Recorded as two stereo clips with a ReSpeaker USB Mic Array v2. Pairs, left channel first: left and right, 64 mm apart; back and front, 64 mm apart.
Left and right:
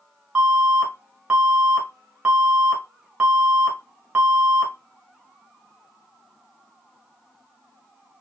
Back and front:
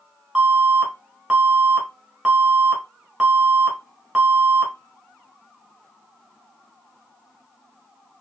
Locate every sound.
0.3 s an alarm: 60° right, 1.2 m